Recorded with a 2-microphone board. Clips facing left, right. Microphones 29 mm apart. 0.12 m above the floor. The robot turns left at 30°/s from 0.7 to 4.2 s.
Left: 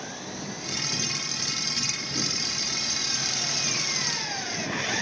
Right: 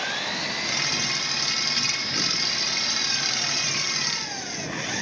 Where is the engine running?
85° right; by 5.0 s 170° left.